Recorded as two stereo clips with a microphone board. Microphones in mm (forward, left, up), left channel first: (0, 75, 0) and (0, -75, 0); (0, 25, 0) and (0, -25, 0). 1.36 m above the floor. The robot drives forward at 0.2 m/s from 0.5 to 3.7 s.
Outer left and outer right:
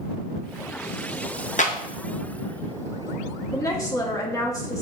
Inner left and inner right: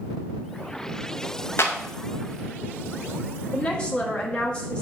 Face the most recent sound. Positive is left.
turn(degrees=20)  # may be behind; listen again after turning